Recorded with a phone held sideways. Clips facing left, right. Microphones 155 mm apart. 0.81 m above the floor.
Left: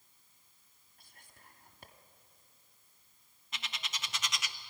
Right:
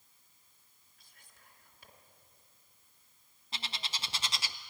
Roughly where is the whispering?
Left.